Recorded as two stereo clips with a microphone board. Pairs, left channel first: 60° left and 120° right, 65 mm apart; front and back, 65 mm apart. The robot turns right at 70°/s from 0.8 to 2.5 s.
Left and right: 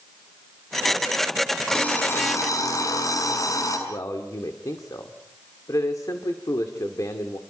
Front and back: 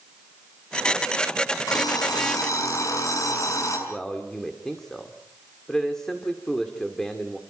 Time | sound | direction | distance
1.7 | an alarm clock | 25° right | 6.5 m
3.9 | a man speaking | 80° left | 2.5 m